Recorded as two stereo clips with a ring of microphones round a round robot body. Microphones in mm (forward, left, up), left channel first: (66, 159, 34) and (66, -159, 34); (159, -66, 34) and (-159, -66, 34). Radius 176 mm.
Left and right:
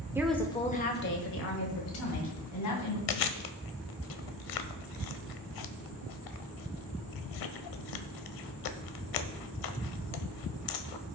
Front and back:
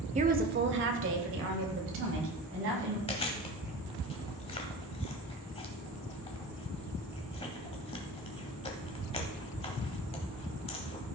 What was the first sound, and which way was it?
A woman speaking, 160° right.